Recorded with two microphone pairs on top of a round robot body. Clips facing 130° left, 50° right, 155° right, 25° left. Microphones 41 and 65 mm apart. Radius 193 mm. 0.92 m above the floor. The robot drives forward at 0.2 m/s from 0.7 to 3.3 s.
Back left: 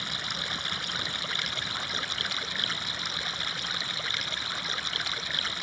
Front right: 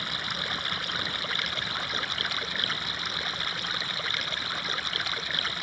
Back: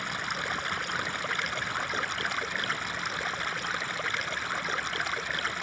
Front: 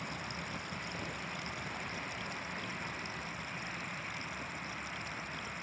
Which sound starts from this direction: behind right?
Running water, at 0.0 s.